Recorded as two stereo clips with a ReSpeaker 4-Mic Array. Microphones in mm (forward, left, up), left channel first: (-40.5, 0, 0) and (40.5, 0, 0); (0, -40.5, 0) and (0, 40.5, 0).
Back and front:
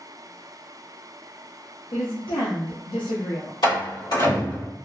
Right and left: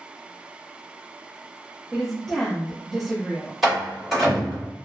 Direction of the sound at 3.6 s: Straight behind.